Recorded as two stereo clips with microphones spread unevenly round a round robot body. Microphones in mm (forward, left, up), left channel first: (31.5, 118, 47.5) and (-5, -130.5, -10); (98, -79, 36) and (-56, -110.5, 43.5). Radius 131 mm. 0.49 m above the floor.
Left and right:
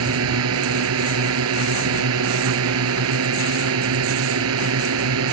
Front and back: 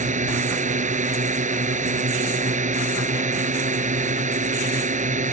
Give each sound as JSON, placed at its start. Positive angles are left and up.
{"t": 0.0, "sound": "a drone", "azimuth_deg": -130}